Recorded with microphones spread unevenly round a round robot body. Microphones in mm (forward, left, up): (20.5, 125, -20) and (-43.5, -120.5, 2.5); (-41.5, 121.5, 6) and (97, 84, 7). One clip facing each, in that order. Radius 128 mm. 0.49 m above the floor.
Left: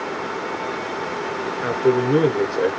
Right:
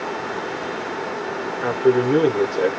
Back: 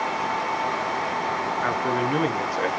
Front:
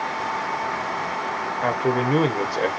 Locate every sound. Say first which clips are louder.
1.6 s a man speaking: right 1 dB, front 5 dB; straight ahead, 0.9 m